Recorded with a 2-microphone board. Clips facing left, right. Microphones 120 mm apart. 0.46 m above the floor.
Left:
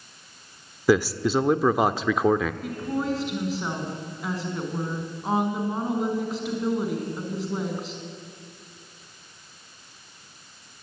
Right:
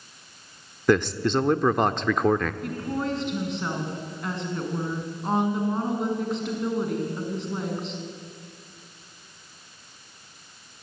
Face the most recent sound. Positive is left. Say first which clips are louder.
# left 1 dB
turn(degrees=5)  # may be behind; listen again after turning